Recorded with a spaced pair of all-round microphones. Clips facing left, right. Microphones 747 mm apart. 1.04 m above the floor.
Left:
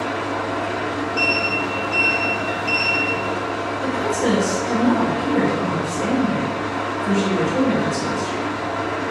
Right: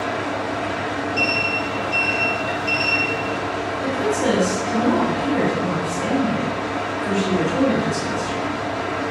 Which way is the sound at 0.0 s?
50° right (ahead or behind).